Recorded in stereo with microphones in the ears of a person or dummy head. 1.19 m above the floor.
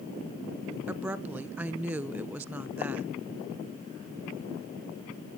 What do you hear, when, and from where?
0.9 s a woman speaking: 10° right (ahead or behind), 0.7 m